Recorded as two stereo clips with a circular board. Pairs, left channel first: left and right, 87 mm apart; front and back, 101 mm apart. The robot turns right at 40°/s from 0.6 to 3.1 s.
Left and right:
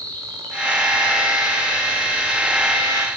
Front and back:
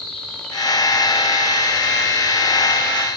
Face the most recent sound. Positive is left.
turn(degrees=-105)